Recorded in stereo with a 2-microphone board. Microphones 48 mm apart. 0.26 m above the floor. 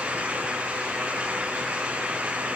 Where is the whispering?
I don't hear whispering.